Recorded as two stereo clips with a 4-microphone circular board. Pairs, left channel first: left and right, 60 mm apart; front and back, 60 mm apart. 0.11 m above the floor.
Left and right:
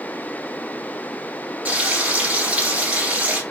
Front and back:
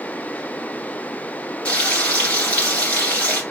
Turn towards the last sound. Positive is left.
turn(degrees=-45)